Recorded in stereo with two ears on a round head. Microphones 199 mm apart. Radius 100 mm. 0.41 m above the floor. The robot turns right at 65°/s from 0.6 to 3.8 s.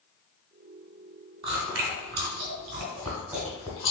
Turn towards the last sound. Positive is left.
turn(degrees=20)  # may be behind; listen again after turning